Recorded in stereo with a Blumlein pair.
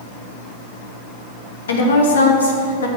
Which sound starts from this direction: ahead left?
A woman speaking, at 1.7 s.